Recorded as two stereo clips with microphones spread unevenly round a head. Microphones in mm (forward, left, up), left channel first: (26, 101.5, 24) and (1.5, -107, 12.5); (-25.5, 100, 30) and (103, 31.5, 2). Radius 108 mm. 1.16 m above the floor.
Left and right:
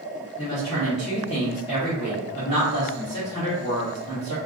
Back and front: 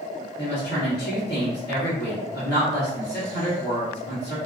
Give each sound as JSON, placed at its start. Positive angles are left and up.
{"t": 0.4, "sound": "a woman speaking", "azimuth_deg": 150, "distance_m": 1.2}